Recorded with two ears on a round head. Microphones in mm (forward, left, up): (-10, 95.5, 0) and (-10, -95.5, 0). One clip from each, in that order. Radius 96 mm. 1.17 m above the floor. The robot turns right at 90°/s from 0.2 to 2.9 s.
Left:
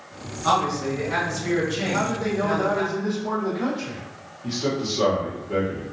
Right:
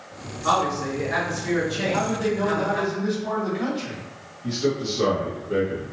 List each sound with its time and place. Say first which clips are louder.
0.4 s a man speaking: even; 65° left, 1.9 m; by 2.8 s 80° right, 1.9 m
1.8 s a man speaking: right 1 dB; 145° right, 1.4 m; by 4.0 s 50° right, 1.4 m
4.4 s a man speaking: right 1 dB; 10° left (ahead or behind), 1.1 m